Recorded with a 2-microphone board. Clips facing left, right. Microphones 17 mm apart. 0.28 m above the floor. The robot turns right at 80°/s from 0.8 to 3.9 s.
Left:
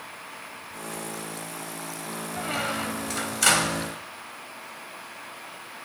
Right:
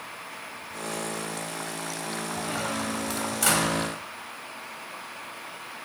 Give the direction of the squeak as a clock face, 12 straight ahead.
11 o'clock.